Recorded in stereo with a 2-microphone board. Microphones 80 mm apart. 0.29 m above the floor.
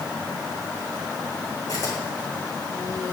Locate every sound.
1.7 s a camera shutter: 55° left (ahead or behind), 7.5 m